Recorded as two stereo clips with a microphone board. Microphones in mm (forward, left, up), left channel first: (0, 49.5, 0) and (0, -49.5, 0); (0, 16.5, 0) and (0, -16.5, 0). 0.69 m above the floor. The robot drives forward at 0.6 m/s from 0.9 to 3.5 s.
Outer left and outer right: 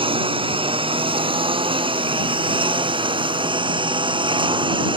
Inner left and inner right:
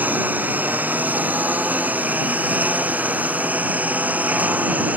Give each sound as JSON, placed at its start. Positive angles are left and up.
{"t": 0.0, "sound": "a lawn mower", "side_deg": -65}